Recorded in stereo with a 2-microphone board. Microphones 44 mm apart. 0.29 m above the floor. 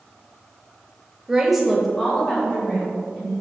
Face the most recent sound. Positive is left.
turn(degrees=40)  # may be behind; listen again after turning